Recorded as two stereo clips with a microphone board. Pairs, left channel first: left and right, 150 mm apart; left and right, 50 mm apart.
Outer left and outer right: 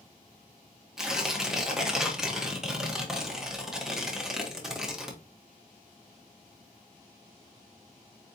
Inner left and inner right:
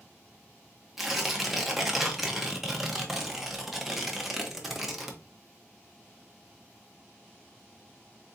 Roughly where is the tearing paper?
Centre.